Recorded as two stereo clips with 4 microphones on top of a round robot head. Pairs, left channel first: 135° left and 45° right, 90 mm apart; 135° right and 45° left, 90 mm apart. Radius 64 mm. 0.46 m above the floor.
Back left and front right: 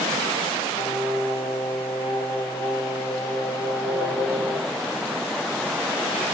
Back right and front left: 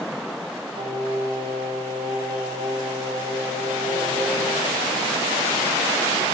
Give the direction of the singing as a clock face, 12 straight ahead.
9 o'clock.